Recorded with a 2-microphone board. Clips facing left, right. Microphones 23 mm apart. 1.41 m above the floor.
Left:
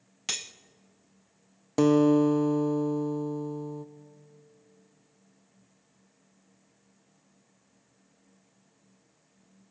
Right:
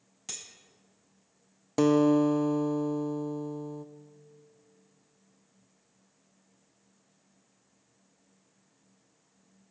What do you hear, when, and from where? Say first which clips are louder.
0.3 s cutlery clinking: left 9 dB; 50° left (ahead or behind), 0.6 m
1.8 s a guitar: left 2 dB; 5° left (ahead or behind), 0.6 m